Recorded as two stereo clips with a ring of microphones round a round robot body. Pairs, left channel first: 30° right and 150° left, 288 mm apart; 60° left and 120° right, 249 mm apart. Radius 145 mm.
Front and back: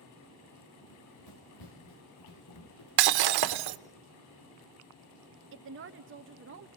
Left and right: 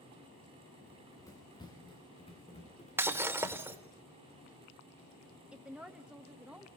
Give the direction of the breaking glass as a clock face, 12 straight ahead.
7 o'clock.